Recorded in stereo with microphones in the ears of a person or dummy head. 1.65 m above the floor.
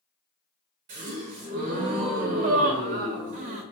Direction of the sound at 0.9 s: 40° right (ahead or behind).